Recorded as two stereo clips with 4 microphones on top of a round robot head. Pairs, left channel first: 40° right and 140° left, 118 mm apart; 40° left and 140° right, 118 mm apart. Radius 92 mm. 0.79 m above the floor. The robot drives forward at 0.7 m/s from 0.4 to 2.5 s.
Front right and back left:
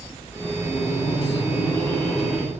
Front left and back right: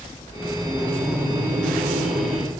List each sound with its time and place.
0.6 s laughter: 70° right, 1.6 m; by 2.5 s 125° right, 1.8 m